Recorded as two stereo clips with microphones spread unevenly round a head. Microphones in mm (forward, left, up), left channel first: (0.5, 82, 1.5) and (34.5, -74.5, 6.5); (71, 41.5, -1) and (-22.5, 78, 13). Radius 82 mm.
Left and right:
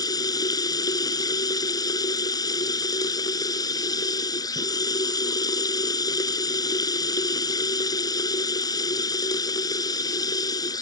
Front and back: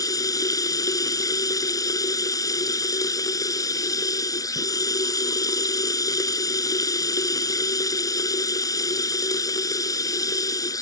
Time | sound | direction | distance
0.0 | running water | 35° left | ?